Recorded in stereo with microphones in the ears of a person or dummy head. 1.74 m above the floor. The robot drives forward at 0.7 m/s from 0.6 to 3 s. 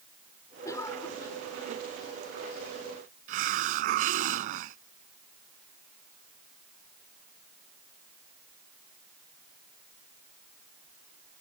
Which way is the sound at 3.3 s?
50° right (ahead or behind).